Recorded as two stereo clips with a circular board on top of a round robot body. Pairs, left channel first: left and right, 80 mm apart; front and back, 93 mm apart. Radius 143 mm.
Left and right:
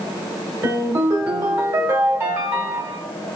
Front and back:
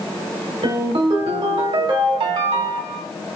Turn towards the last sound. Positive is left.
turn(degrees=-150)